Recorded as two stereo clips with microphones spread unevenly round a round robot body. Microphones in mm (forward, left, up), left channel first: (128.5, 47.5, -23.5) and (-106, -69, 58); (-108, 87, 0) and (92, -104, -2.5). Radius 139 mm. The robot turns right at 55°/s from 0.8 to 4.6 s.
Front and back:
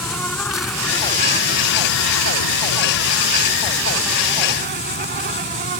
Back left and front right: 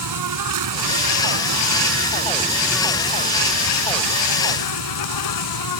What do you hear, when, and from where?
0.0 s an insect: 60° right; by 5.8 s 150° left